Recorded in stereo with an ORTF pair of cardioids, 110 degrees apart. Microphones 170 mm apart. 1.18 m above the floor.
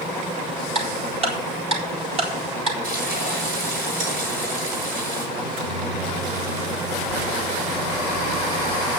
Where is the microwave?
60° right, 5 m.